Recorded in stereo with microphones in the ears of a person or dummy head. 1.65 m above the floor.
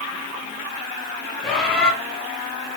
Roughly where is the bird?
Centre.